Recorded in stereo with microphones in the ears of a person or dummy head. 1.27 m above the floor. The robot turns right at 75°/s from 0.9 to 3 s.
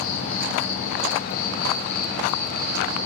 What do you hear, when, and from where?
0.0 s an insect: 95° left, 3 m; by 3.1 s 105° right, 3 m